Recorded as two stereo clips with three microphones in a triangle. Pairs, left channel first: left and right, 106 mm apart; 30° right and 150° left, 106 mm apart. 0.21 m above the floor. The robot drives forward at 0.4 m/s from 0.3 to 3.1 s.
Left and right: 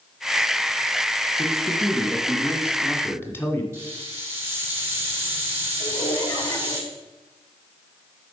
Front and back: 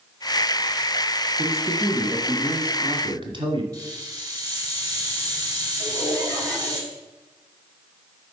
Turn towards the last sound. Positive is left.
turn(degrees=85)